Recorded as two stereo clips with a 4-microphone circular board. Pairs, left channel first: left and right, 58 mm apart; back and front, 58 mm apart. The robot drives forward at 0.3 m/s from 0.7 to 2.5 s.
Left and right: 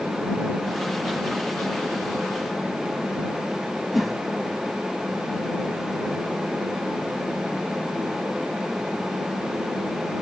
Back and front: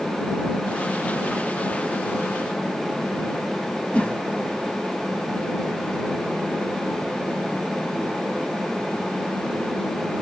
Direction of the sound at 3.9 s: 170° right.